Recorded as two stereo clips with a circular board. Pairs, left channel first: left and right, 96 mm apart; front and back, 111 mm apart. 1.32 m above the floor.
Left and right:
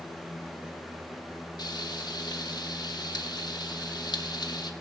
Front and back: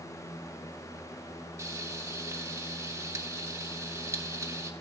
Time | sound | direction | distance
1.6 | frying | 120° left | 1.3 m